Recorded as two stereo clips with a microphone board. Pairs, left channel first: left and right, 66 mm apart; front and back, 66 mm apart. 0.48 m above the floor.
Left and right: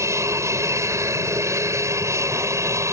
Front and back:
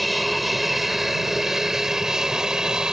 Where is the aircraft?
90° right; by 2.9 s 105° right.